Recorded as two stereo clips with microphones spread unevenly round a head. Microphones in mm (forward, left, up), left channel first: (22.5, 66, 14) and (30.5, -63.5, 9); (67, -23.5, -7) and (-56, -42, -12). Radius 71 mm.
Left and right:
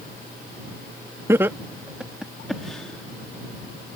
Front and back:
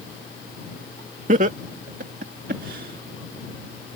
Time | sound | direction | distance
1.3 | laughter | 160° right | ?